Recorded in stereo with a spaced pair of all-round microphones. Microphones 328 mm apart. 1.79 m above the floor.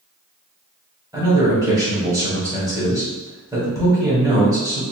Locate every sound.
1.1 s a man speaking: 10° right (ahead or behind), 1.4 m